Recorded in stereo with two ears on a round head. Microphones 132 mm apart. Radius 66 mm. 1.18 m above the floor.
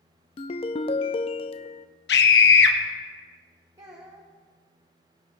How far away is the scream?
About 1.6 m.